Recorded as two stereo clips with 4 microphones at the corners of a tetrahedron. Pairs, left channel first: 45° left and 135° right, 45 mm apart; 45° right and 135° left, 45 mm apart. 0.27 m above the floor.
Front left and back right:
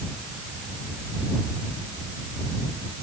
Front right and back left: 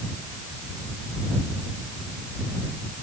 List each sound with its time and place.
Only background noise.